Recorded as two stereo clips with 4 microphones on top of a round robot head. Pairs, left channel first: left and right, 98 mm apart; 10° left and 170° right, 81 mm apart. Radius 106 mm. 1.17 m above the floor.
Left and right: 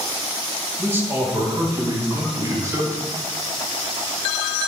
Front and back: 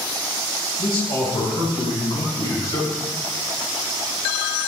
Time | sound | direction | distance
0.8 | a man speaking | 20° right | 3.5 m